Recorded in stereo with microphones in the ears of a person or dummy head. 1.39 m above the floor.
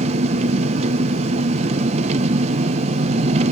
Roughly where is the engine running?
Right.